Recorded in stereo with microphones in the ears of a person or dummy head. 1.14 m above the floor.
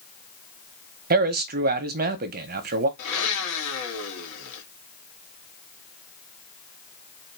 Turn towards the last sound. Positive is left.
turn(degrees=85)